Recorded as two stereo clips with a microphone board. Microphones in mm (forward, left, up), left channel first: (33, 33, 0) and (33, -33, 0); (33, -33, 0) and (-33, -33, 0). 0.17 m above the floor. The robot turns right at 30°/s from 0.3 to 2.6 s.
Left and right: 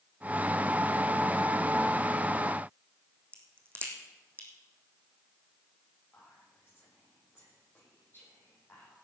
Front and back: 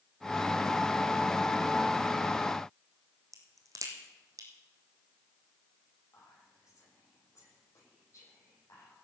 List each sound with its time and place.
3.3 s a crack: 145° right, 2.5 m
6.1 s whispering: 35° left, 8.5 m